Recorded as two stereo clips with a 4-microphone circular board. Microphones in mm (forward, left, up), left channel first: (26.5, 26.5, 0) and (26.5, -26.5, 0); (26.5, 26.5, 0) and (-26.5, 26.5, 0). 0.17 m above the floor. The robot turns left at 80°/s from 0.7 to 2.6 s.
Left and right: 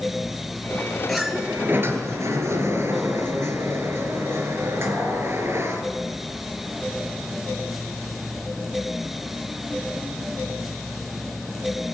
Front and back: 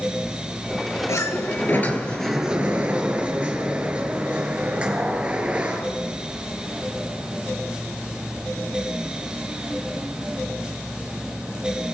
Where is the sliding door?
5° left, 3 m; by 5.8 s 115° right, 3 m.